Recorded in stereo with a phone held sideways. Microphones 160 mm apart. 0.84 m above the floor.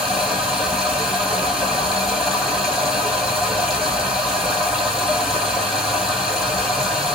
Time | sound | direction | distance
0.0 | running water | 5° right (ahead or behind) | 2 m